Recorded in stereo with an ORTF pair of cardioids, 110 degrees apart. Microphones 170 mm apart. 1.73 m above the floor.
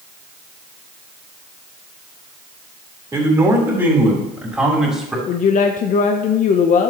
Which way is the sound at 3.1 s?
15° right.